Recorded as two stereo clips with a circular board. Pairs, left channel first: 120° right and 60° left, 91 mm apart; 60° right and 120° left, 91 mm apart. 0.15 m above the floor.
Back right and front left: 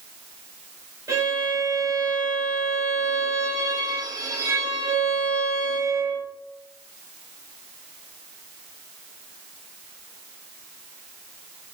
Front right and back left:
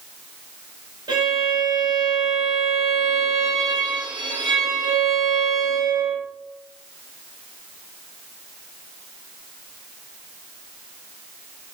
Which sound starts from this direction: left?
A violin, at 1.1 s.